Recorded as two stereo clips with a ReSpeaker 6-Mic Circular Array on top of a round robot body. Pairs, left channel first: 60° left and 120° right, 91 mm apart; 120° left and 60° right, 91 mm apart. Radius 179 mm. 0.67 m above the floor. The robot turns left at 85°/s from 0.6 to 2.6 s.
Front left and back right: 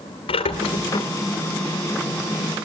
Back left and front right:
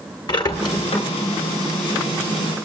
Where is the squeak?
80° left, 1.8 m; by 1.1 s 40° left, 1.8 m.